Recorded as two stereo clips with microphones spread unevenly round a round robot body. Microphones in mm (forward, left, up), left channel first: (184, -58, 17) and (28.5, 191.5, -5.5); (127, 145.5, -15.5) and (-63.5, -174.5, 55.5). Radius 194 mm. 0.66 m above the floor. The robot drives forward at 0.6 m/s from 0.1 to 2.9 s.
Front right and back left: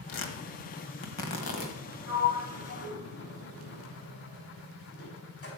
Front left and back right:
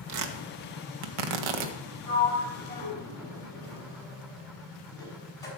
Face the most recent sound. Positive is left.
turn(degrees=-20)